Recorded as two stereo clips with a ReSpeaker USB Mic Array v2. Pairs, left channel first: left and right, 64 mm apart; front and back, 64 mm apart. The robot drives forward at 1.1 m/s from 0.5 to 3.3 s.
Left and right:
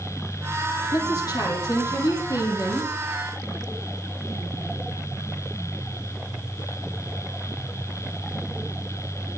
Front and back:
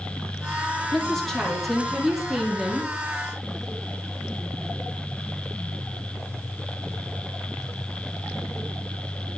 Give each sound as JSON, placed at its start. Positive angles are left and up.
{"t": 0.9, "sound": "a woman speaking", "azimuth_deg": 85, "distance_m": 7.5}